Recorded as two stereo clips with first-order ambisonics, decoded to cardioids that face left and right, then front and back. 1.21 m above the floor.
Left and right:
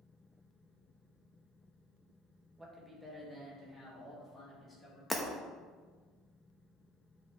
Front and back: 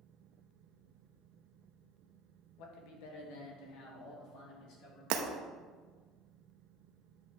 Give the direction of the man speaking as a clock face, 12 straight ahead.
12 o'clock.